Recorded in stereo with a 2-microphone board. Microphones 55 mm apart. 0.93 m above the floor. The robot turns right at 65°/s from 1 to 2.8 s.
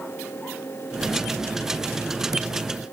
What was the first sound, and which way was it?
Only background noise.